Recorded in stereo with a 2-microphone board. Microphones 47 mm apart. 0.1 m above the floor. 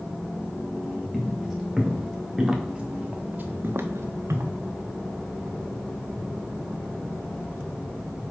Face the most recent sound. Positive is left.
turn(degrees=-85)